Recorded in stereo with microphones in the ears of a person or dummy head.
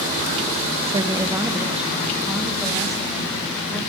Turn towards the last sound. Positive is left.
turn(degrees=5)  # may be behind; listen again after turning